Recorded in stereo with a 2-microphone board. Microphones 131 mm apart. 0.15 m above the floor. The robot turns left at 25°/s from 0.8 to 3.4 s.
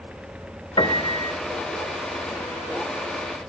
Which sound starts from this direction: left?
A piano, at 0.8 s.